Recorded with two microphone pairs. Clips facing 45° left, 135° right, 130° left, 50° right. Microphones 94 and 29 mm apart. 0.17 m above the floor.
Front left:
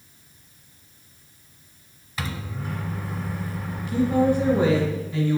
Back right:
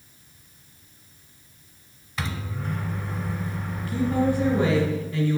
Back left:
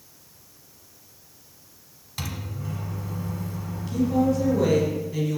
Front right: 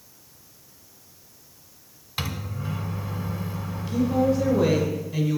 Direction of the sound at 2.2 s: 40° right.